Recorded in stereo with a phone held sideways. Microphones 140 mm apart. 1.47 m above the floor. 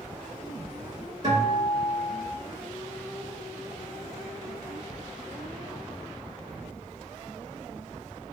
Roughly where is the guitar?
Right.